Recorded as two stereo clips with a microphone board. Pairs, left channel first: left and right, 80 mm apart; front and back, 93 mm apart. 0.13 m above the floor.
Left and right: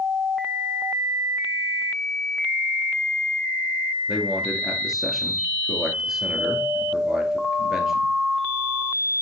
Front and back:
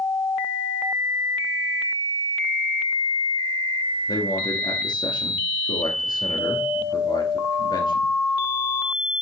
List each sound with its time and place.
4.1 s a man speaking: 5° right, 2 m